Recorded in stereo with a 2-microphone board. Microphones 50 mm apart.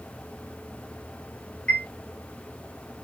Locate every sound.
1.7 s a chime: 20° left (ahead or behind), 1.5 m